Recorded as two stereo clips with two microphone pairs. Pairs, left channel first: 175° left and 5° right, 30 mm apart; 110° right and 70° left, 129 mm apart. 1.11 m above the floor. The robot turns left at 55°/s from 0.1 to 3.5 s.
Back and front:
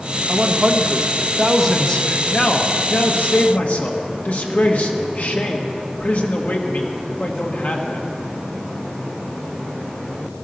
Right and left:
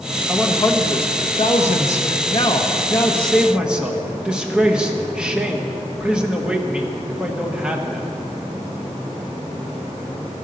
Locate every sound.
0.3 s a man speaking: 30° right, 1.5 m; by 8.1 s 150° left, 1.5 m